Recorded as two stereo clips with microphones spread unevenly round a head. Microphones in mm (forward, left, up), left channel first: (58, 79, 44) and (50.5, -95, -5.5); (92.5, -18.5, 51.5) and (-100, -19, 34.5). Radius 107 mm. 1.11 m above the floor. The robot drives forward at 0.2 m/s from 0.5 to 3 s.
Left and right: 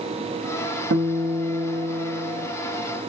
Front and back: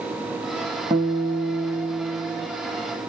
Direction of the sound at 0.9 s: 110° right.